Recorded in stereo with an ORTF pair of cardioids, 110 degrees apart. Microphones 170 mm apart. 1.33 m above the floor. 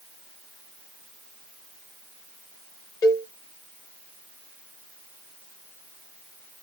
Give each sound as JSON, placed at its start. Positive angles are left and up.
{"t": 3.0, "sound": "a cowbell", "azimuth_deg": 20, "distance_m": 0.9}